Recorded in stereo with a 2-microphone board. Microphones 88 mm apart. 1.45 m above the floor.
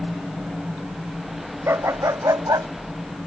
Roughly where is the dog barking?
Right.